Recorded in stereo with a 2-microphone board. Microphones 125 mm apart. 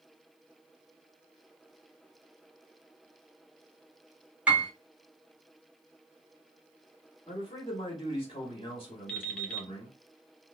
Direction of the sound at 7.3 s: 35° left (ahead or behind).